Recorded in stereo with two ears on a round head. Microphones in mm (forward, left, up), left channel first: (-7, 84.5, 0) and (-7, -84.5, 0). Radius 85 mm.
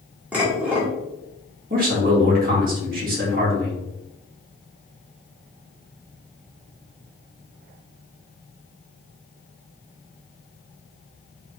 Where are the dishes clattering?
5° right (ahead or behind), 1.4 m.